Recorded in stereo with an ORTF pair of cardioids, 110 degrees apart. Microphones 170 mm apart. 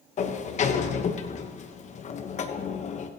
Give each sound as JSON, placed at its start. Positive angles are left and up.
{"t": 0.2, "sound": "a sliding door", "azimuth_deg": 45, "distance_m": 1.1}